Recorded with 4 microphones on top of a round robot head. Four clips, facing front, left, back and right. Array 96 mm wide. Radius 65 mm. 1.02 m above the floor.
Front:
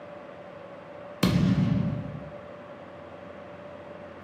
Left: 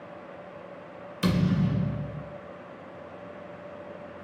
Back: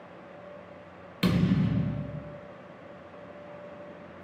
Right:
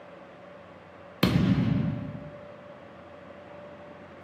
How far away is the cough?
I don't hear a cough.